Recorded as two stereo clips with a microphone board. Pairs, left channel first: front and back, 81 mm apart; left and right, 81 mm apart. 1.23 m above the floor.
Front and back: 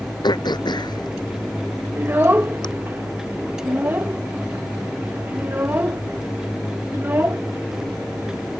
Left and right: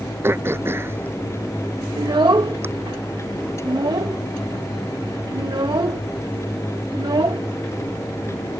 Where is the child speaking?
120° right.